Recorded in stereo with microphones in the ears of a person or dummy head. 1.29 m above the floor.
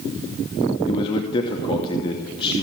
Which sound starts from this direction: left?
A man speaking, at 0.9 s.